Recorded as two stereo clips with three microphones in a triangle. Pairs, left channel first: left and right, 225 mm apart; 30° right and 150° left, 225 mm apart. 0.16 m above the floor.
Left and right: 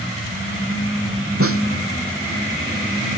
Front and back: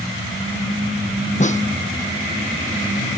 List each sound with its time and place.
1.4 s a snare drum: 90° right